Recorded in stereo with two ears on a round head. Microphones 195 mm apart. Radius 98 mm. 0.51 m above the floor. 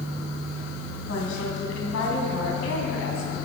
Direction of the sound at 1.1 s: 75° left (ahead or behind).